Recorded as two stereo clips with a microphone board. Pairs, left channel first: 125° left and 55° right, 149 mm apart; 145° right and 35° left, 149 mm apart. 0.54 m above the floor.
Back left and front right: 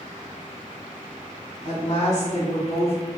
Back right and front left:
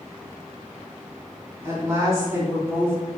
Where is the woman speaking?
105° left, 1.9 m.